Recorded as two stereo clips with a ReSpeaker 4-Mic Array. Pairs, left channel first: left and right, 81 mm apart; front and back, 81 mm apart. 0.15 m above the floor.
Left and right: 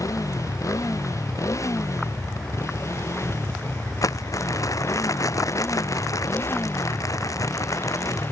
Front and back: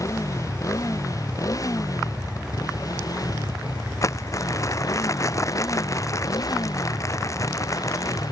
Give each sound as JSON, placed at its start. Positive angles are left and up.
{"t": 0.0, "sound": "a motorcycle", "azimuth_deg": 45}
{"t": 4.0, "sound": "crumpling", "azimuth_deg": 45}